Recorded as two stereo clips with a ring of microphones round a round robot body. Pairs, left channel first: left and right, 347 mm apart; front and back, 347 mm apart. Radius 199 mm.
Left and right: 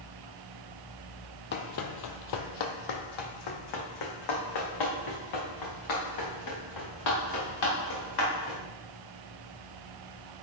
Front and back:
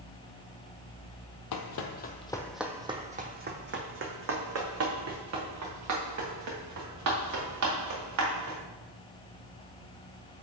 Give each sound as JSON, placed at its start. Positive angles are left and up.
{"t": 1.5, "sound": "running footsteps", "azimuth_deg": 35, "distance_m": 0.6}